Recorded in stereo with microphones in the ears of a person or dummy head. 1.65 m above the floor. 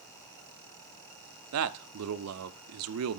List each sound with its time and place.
1.5 s a man speaking: 75° right (ahead or behind), 0.5 m